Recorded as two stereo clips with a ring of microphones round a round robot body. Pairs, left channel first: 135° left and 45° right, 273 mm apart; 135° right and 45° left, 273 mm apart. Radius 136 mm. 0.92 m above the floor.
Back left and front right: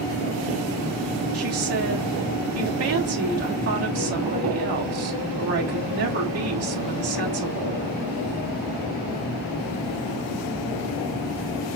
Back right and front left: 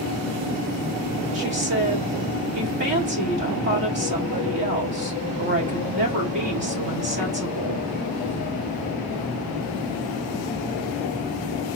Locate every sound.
1.3 s a woman speaking: 10° right, 2.5 m